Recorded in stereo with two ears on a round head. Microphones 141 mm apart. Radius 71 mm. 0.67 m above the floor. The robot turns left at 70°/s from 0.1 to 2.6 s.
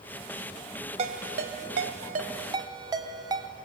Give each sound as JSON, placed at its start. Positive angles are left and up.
{"t": 1.0, "sound": "a ringtone", "side_deg": -40, "distance_m": 2.0}